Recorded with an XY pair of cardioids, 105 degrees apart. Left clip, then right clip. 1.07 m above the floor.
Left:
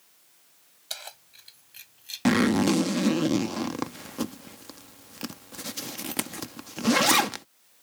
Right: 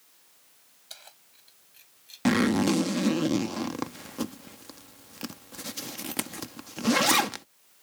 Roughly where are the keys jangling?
Ahead left.